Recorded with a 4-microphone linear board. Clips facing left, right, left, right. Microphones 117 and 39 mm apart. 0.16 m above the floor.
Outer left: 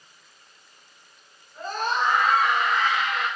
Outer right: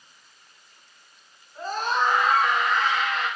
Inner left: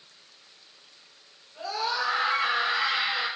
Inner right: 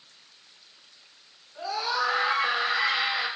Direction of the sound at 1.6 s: 10° right (ahead or behind).